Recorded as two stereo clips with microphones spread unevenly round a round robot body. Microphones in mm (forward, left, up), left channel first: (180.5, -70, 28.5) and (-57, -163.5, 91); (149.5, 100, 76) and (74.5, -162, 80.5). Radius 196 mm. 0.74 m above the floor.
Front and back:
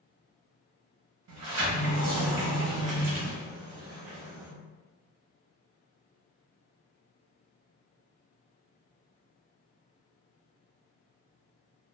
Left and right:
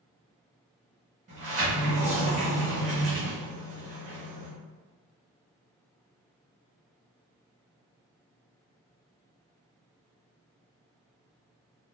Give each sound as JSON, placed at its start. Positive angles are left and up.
{"t": 1.3, "sound": "a sliding door", "azimuth_deg": -165, "distance_m": 0.7}